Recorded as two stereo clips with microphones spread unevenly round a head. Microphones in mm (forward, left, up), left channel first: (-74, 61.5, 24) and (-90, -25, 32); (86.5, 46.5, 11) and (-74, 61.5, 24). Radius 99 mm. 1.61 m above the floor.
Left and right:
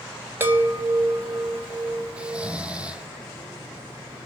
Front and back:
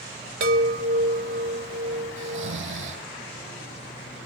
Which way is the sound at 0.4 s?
165° right.